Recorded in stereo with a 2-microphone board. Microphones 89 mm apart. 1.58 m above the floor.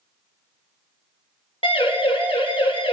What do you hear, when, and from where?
1.6 s a siren: 85° left, 8 m; by 2.9 s 75° left (ahead or behind), 7.5 m